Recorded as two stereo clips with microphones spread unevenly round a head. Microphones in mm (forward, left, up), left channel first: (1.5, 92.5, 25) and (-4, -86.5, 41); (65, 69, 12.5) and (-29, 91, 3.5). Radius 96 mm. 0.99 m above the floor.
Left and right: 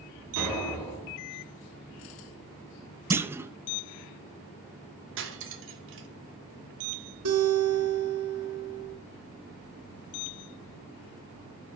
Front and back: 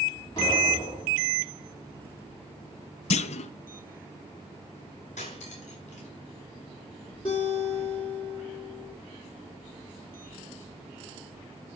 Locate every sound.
0.4 s an explosion: 85° right, 5 m
3.1 s a clunk: 10° right, 0.8 m
5.2 s cutlery clinking: 65° right, 2 m
7.2 s a guitar: 80° right, 5 m